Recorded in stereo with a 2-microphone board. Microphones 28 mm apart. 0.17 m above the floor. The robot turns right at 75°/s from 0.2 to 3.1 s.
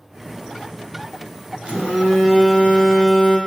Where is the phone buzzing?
115° right, 0.7 m; by 3.4 s 10° right, 0.7 m.